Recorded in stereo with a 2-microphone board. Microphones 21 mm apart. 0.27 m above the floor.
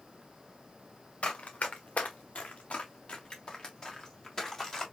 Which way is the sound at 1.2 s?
70° left (ahead or behind).